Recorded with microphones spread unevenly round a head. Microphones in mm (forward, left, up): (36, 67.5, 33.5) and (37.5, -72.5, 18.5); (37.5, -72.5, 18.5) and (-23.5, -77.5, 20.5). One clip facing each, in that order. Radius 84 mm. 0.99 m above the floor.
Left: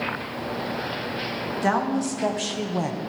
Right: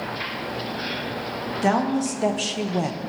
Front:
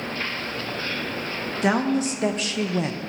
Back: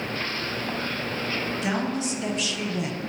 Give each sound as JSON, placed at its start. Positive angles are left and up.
{"t": 1.6, "sound": "a woman speaking", "azimuth_deg": -25, "distance_m": 1.8}